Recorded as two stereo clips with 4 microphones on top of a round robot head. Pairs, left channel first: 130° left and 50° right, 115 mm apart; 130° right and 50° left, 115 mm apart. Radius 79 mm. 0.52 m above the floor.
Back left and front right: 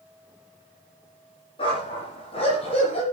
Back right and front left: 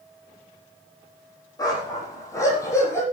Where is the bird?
I don't hear a bird.